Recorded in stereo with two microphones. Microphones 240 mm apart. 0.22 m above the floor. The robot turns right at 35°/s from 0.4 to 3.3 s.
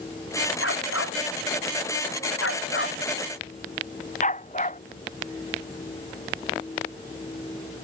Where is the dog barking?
55° left (ahead or behind); by 4.8 s 30° left (ahead or behind).